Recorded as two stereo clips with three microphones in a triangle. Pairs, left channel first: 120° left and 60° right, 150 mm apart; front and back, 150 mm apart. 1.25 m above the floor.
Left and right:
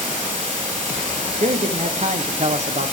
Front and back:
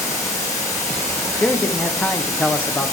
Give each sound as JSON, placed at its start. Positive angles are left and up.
{"t": 0.0, "sound": "running water", "azimuth_deg": -65, "distance_m": 6.5}
{"t": 1.4, "sound": "a man speaking", "azimuth_deg": -75, "distance_m": 0.6}